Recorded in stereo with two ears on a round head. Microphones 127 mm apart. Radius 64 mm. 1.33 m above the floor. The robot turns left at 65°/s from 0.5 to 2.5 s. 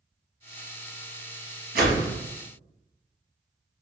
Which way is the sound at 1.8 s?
75° right (ahead or behind).